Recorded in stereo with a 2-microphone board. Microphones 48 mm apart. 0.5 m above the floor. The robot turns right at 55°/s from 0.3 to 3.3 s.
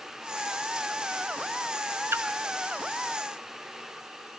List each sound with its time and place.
2.1 s a splash: 60° right (ahead or behind), 1.0 m; by 2.2 s 65° right (ahead or behind), 1.0 m